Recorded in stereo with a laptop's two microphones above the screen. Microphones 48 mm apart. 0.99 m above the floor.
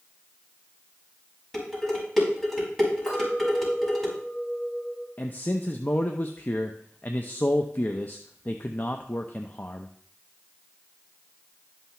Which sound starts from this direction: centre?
Dishes clattering, at 1.5 s.